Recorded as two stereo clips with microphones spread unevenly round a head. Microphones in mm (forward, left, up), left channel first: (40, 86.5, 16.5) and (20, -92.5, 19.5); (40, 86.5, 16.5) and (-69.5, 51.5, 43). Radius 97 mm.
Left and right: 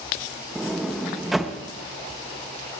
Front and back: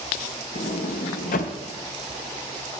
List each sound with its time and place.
0.6 s a sliding door: 5° right, 0.5 m